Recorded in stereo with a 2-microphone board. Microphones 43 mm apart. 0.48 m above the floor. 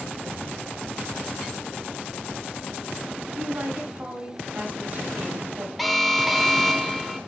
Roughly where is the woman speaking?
Right.